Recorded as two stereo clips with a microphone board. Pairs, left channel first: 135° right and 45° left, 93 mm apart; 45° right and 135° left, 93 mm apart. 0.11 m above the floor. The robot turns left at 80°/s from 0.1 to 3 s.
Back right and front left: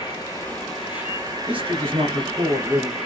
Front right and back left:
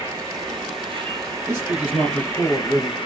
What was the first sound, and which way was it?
An insect, 170° right.